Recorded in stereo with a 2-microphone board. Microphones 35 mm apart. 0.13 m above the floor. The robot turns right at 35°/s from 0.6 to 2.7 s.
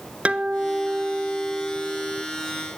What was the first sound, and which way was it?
A guitar, 60° right.